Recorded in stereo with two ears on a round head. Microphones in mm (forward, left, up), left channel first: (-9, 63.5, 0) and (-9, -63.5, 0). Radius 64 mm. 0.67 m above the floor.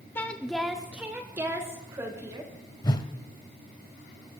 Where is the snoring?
No snoring in this recording.